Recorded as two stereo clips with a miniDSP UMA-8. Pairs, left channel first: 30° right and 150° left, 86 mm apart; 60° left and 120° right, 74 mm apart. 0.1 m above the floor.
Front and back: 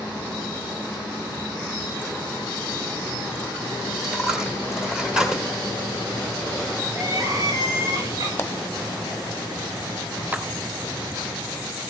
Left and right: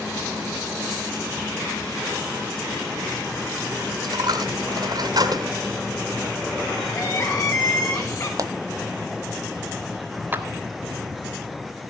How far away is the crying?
About 5 m.